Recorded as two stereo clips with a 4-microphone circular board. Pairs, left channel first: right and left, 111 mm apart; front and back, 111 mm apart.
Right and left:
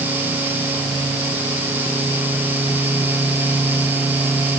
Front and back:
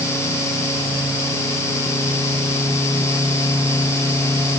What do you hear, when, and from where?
Only background noise.